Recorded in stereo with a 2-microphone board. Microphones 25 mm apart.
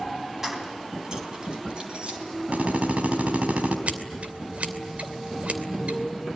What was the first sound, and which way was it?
Keys jangling, 20° right (ahead or behind).